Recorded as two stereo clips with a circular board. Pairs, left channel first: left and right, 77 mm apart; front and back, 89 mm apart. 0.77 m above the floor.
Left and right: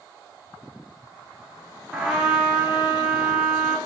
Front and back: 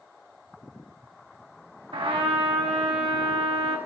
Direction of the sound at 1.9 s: 175° right.